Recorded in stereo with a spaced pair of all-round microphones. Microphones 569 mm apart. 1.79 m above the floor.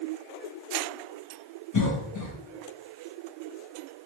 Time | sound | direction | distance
1.7 | a cough | 35° left (ahead or behind) | 0.8 m